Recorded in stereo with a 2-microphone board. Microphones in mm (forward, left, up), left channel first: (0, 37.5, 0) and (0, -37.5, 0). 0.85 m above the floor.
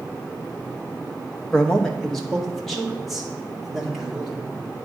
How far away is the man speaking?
About 0.9 m.